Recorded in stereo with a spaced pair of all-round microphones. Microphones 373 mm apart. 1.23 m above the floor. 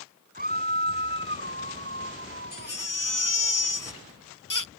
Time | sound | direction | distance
0.3 | a scream | 25° right (ahead or behind) | ?
2.5 | a baby crying | 60° left (ahead or behind) | ?